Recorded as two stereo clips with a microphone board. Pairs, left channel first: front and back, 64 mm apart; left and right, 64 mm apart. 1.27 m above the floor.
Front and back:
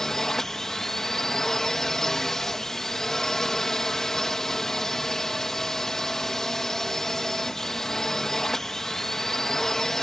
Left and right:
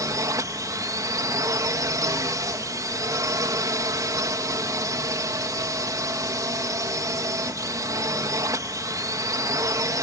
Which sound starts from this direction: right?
A drone, at 0.0 s.